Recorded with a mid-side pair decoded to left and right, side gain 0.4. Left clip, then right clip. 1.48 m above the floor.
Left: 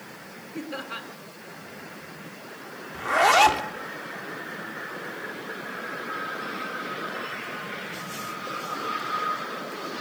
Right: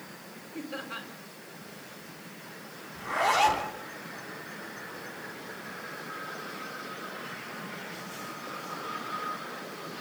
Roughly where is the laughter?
Ahead left.